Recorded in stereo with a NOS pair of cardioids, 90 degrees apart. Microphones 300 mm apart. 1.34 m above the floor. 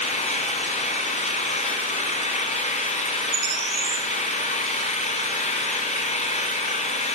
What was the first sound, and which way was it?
An engine running, 20° left.